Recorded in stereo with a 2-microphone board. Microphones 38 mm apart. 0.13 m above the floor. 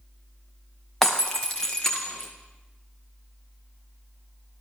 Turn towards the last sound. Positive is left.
turn(degrees=10)  # may be behind; listen again after turning